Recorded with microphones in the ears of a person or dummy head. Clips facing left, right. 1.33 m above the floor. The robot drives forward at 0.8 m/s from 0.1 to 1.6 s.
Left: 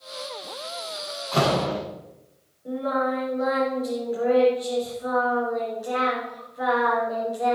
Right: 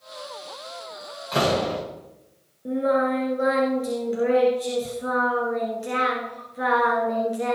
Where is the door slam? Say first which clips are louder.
Even; 25° right (ahead or behind), 6.5 m.